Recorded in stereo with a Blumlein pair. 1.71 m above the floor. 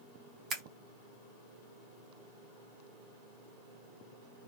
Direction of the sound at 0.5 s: 25° right.